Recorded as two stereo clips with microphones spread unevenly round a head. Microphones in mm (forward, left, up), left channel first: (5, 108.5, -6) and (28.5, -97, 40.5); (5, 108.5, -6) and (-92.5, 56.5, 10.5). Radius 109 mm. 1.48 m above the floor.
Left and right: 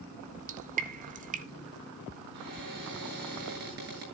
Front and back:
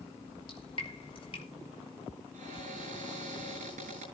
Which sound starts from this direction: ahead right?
Dripping, at 0.2 s.